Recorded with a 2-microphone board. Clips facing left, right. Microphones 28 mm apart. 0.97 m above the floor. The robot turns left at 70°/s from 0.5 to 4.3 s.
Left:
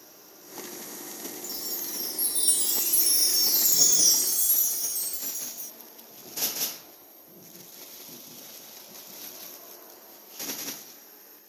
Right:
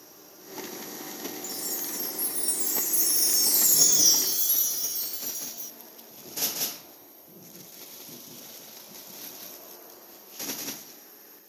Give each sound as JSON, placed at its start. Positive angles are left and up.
{"t": 1.4, "sound": "a chime", "azimuth_deg": 170}